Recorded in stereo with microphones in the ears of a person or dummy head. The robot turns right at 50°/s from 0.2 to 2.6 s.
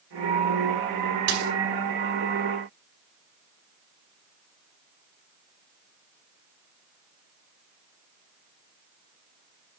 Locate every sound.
1.3 s a dropped coin: 75° right (ahead or behind), 4.5 m; by 1.5 s 60° right (ahead or behind), 4.5 m